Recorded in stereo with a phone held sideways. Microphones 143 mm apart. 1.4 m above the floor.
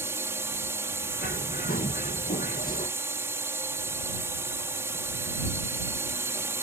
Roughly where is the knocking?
No knocking in this recording.